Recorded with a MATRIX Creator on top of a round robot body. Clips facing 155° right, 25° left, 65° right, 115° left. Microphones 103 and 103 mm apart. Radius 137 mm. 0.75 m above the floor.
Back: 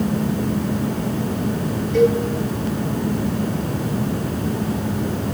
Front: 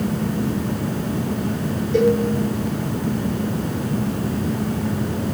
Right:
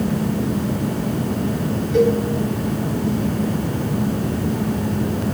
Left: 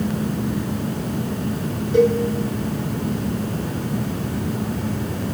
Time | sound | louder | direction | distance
1.9 | a cowbell | back 1 dB, even | 55° left | 3 m